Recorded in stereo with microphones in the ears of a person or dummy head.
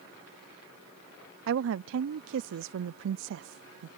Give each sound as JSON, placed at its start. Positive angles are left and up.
{"t": 1.5, "sound": "a woman speaking", "side_deg": -70}